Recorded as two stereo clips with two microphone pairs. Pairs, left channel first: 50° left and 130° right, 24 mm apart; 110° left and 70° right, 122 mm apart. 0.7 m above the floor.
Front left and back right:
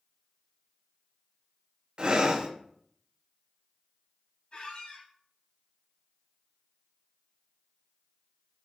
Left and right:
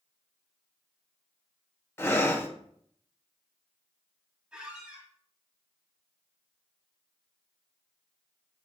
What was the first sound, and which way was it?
Breathing, 175° left.